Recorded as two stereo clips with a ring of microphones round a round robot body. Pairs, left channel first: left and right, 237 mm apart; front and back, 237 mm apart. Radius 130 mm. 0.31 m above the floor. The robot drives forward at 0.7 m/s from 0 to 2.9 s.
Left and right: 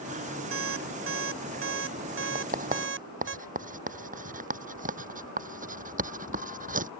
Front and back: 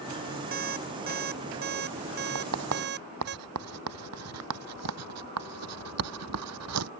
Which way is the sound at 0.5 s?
120° right.